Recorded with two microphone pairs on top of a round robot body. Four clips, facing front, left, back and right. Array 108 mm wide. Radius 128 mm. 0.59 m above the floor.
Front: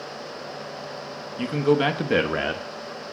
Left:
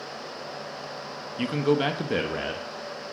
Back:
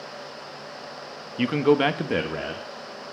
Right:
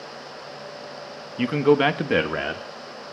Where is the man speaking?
160° right, 1.0 m; by 2.6 s 25° right, 1.0 m.